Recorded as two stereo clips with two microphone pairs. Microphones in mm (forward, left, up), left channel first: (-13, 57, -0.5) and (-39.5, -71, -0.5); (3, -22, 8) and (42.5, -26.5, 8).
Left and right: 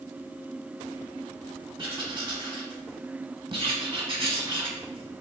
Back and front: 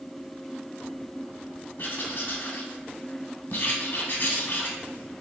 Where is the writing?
155° right, 0.8 m.